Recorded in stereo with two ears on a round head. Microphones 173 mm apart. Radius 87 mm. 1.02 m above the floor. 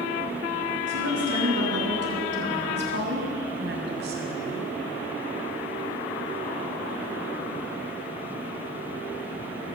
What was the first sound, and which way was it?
A woman speaking, 70° right (ahead or behind).